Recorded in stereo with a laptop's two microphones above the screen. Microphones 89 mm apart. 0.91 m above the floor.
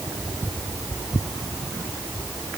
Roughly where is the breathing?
I don't hear breathing.